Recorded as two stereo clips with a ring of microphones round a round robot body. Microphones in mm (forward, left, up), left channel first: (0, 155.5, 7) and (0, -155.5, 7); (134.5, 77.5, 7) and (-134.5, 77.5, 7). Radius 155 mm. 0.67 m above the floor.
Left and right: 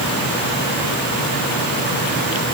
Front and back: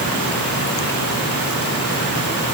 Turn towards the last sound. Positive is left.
No sound to turn to.